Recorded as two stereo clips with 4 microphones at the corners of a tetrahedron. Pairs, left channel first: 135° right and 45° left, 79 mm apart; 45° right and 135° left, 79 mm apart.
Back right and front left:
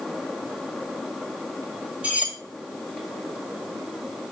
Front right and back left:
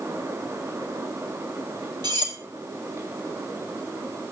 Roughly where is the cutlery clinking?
Behind left.